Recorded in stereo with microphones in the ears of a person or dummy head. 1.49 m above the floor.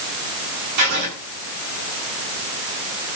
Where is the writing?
60° right (ahead or behind), 9.5 m.